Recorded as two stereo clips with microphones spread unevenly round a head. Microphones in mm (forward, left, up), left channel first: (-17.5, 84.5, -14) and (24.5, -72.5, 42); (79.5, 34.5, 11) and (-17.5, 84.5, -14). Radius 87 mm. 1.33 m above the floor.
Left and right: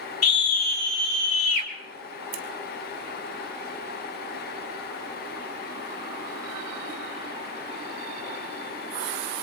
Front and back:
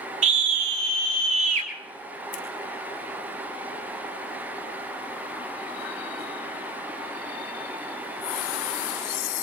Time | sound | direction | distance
0.2 | a scream | 155° left | 3 m
2.3 | scissors | 65° right | 1.4 m